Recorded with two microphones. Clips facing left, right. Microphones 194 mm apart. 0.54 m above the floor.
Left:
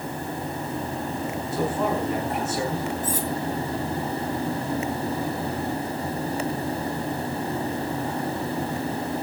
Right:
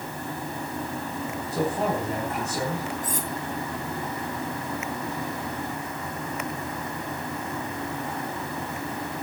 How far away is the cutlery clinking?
About 2.5 m.